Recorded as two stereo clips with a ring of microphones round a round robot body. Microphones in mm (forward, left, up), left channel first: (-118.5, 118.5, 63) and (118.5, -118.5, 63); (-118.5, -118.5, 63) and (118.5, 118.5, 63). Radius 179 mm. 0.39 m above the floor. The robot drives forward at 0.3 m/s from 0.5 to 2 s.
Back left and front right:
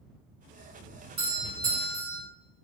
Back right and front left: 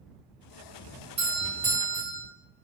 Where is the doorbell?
10° right, 1.3 m; by 2.2 s 20° right, 1.2 m.